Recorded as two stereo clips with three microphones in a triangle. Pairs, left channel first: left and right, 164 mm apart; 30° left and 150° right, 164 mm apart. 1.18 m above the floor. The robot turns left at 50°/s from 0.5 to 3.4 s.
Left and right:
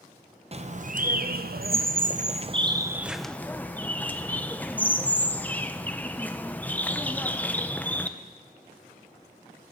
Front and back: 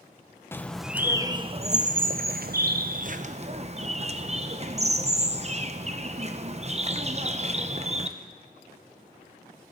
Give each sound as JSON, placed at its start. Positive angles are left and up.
{"t": 0.5, "sound": "a bird", "azimuth_deg": -45, "distance_m": 0.6}